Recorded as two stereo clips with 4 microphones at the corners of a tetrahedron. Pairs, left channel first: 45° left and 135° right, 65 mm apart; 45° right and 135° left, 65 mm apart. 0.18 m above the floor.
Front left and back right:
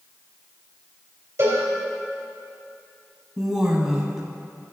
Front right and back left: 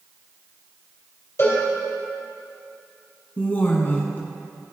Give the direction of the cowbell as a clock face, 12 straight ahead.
3 o'clock.